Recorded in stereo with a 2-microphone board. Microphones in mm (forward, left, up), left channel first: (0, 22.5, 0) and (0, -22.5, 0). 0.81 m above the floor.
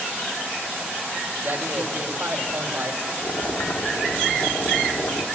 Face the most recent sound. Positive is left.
turn(degrees=75)  # may be behind; listen again after turning